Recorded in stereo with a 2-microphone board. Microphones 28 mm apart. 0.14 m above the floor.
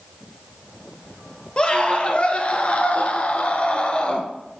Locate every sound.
1.6 s a scream: 35° left (ahead or behind), 2.5 m